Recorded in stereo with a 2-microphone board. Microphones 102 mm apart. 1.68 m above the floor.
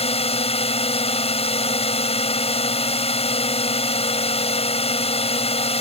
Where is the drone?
75° left (ahead or behind).